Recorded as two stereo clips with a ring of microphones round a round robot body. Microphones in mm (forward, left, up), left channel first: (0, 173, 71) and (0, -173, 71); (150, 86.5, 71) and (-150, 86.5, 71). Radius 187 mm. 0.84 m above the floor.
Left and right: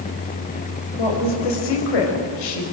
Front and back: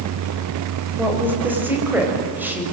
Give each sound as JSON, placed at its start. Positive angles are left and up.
{"t": 1.0, "sound": "a woman speaking", "azimuth_deg": 95, "distance_m": 5.5}